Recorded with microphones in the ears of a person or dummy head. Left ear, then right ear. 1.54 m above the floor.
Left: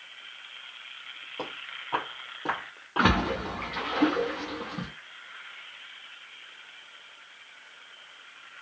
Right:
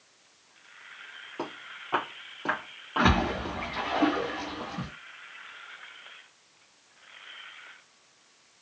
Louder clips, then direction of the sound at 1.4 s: Left 1 dB; 5° right (ahead or behind).